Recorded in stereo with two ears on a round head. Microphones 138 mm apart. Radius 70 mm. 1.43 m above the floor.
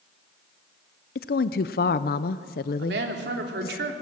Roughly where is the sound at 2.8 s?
Right.